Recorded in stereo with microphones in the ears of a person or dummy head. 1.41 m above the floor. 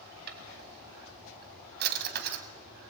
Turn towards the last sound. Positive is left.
turn(degrees=-55)  # may be behind; listen again after turning